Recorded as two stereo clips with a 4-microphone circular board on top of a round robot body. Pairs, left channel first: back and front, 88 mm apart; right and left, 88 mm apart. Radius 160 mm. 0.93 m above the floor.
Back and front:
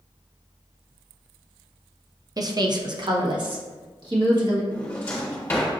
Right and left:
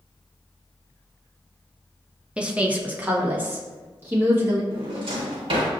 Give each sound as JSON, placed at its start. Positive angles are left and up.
{"t": 2.4, "sound": "a woman speaking", "azimuth_deg": 15, "distance_m": 0.8}
{"t": 4.7, "sound": "a drawer", "azimuth_deg": 110, "distance_m": 1.2}